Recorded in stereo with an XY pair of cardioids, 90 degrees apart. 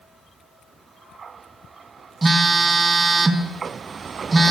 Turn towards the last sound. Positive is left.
turn(degrees=-35)